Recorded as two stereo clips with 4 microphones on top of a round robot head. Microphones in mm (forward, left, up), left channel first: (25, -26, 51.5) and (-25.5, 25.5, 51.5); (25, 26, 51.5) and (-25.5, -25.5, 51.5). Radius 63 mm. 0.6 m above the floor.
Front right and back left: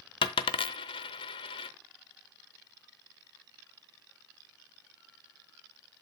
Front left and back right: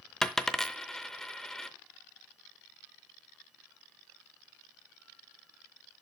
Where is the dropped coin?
40° right, 0.6 m.